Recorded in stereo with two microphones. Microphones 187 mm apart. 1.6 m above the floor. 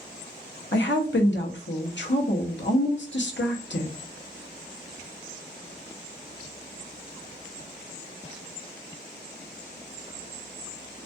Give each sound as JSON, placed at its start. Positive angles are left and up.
{"t": 0.7, "sound": "a woman speaking", "side_deg": 80, "distance_m": 0.7}